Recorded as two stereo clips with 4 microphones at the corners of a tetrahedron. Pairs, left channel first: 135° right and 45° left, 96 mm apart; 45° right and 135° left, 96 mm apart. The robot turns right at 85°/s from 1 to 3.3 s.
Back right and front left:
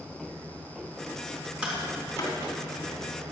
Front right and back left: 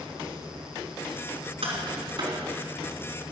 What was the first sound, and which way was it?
Tapping, 120° left.